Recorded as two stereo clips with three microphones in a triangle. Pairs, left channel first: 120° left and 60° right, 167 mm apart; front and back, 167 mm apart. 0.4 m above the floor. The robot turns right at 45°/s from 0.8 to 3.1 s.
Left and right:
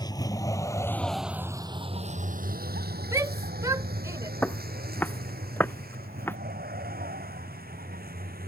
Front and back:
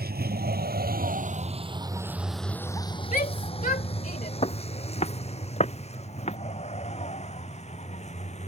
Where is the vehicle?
175° right; by 8.5 s 45° right.